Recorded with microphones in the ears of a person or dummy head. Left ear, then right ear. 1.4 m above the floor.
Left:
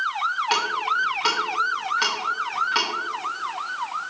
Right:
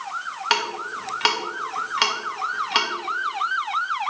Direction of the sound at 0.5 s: 20° right (ahead or behind).